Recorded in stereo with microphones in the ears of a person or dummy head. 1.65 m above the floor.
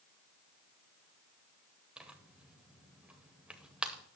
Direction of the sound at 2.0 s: 5° right (ahead or behind).